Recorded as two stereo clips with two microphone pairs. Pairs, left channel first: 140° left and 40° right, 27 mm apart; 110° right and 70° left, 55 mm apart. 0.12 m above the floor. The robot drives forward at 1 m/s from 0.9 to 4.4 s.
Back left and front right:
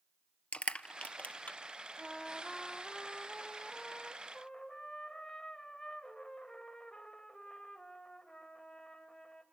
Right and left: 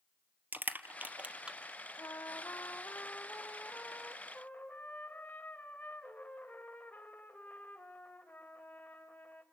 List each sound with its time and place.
0.5 s crushing: 120° left, 1.1 m; by 1.6 s 145° left, 1.5 m
2.0 s a trumpet: 145° right, 1.0 m; by 9.4 s 170° right, 3.5 m